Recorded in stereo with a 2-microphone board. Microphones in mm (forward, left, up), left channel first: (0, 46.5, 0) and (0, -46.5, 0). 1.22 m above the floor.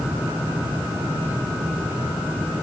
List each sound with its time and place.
Only background noise.